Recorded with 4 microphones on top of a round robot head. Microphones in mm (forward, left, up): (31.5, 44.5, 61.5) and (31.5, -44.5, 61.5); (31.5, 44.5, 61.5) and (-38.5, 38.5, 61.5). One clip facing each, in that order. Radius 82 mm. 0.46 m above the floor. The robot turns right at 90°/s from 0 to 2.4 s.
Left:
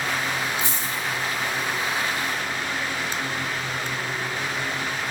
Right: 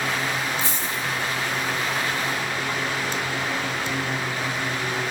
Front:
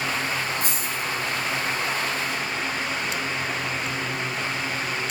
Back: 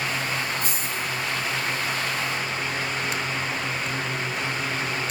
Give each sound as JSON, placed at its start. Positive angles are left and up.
{"t": 0.6, "sound": "a dropped coin", "azimuth_deg": 15, "distance_m": 5.0}